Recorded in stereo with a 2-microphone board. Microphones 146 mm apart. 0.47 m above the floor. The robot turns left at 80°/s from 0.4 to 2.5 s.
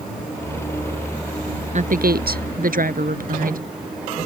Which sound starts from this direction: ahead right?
A woman speaking, at 1.7 s.